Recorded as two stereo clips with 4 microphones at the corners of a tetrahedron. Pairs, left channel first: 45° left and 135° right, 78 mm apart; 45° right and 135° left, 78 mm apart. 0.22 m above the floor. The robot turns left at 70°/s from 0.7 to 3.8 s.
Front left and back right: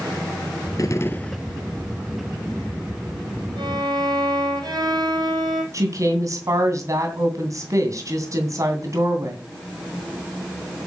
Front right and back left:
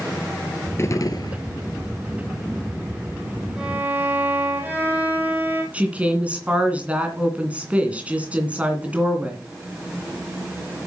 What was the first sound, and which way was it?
A gunshot, 5° left.